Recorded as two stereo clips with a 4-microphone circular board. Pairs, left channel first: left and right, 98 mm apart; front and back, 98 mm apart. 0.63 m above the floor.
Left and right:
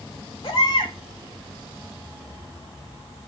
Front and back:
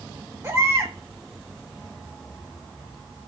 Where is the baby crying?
120° left, 2.5 m.